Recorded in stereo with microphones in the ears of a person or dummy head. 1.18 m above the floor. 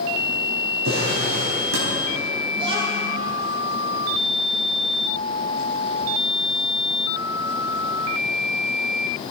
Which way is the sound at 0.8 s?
75° right (ahead or behind).